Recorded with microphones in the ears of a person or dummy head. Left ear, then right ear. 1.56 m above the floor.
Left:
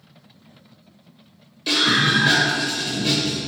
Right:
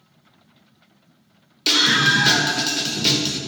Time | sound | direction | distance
1.7 | a scream | 45° right (ahead or behind) | 1.2 m